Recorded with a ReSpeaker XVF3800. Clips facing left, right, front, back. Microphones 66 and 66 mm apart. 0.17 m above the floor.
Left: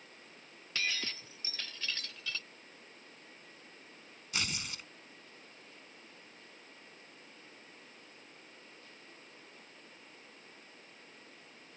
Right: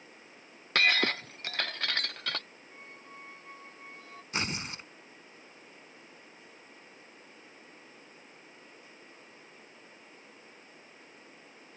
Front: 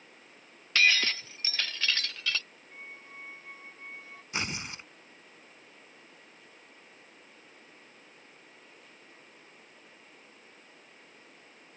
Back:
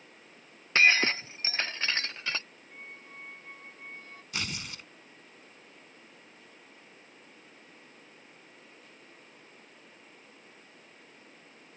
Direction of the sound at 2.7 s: 85° right.